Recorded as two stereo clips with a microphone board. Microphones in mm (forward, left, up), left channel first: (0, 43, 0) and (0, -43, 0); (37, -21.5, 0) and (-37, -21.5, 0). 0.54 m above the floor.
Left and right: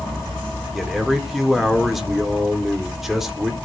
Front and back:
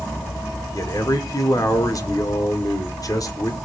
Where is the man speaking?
Straight ahead, 1.8 m.